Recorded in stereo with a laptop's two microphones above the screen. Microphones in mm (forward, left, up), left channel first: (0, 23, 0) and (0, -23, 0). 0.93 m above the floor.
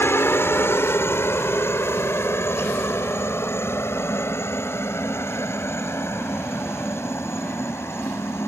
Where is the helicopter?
60° left (ahead or behind); by 8.5 s 70° left (ahead or behind).